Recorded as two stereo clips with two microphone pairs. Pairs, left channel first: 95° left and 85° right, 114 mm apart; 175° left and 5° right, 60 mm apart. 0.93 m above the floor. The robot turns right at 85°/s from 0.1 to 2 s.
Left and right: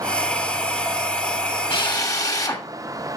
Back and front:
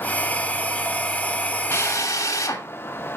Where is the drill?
125° left, 2.5 m; by 2.7 s 150° left, 2.5 m.